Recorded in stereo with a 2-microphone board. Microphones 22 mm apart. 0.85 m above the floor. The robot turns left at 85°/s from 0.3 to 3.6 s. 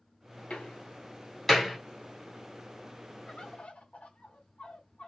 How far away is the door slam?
About 2.0 m.